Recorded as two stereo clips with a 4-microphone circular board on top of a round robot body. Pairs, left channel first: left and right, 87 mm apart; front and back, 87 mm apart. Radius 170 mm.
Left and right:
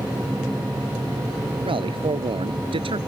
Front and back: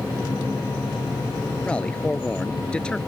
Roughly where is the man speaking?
Right.